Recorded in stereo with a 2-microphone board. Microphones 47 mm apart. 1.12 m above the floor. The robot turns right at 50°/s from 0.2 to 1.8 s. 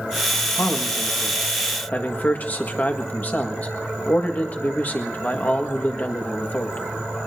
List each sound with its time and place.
0.6 s a man speaking: 80° left, 1.6 m; by 6.8 s 140° left, 1.6 m